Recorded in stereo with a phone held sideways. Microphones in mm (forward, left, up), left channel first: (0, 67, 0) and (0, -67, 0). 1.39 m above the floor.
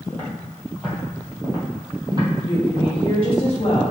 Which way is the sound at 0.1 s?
10° left (ahead or behind).